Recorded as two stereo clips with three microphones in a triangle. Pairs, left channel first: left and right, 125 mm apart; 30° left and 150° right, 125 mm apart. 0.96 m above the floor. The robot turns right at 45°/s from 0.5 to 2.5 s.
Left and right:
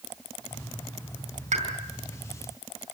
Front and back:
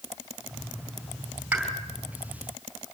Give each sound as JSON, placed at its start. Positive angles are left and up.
{"t": 1.5, "sound": "a pop", "azimuth_deg": -70, "distance_m": 3.5}